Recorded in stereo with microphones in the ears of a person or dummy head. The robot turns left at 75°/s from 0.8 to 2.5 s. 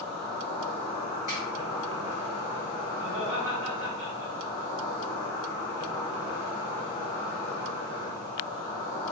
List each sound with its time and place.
0.0 s an insect: 165° left, 1.5 m; by 9.1 s 35° left, 1.5 m
1.3 s a finger snap: 50° left (ahead or behind), 1.4 m; by 1.4 s 60° left (ahead or behind), 1.4 m
3.0 s laughter: 50° right (ahead or behind), 0.9 m